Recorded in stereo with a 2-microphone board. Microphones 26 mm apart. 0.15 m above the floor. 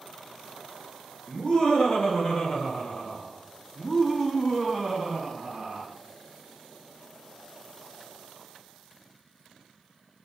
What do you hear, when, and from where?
1.3 s laughter: 40° left (ahead or behind), 3 m; by 5.9 s 10° right (ahead or behind), 1.5 m